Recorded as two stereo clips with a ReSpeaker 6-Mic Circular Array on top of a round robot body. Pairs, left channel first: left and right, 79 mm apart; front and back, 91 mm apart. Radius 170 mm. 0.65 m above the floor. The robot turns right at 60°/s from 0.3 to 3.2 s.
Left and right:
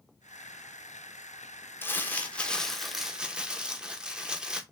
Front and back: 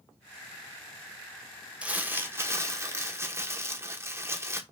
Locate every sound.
1.8 s crumpling: 115° left, 1.2 m; by 4.6 s 160° right, 1.2 m